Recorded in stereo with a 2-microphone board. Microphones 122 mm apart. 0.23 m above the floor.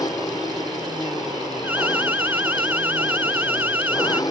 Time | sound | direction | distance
0.0 | an engine running | 30° left (ahead or behind) | ?
1.6 | an alarm | 15° right (ahead or behind) | ?